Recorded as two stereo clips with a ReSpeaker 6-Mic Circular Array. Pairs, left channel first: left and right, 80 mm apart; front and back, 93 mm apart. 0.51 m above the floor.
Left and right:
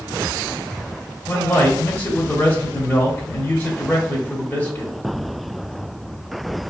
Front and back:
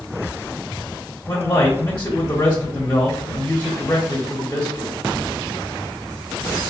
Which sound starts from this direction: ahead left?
A man speaking, at 1.3 s.